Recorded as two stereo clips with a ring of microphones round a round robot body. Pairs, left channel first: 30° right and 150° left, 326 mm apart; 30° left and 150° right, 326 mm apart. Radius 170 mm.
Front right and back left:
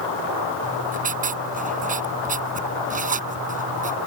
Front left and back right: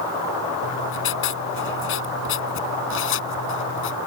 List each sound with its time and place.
0.6 s writing: 85° left